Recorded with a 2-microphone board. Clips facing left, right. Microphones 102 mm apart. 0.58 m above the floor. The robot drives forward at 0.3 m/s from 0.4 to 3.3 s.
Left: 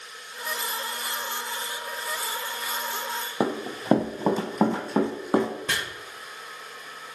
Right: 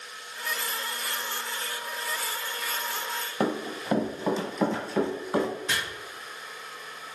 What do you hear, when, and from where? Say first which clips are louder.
3.4 s running footsteps: left 1 dB; 15° left (ahead or behind), 0.6 m; by 5.5 s 55° left (ahead or behind), 1.5 m
5.7 s chopping: left 2 dB; 60° left (ahead or behind), 0.9 m